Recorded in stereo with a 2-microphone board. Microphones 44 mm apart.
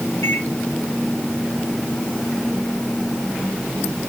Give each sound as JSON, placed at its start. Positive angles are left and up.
{"t": 0.2, "sound": "a microwave", "side_deg": 90, "distance_m": 8.5}